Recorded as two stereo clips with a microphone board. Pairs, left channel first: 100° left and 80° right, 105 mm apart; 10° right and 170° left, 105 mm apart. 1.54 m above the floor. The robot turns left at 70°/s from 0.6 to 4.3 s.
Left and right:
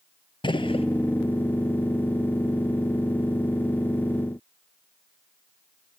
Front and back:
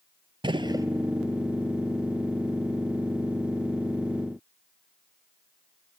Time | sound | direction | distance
0.4 | a gunshot | 130° left | 0.6 m